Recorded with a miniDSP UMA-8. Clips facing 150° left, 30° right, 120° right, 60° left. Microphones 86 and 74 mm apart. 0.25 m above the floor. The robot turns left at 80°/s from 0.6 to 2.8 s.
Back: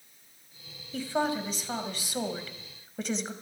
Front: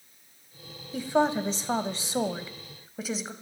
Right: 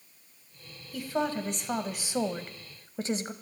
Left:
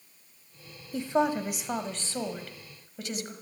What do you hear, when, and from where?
0.9 s a woman speaking: 35° left, 1.1 m; by 3.3 s 115° right, 1.1 m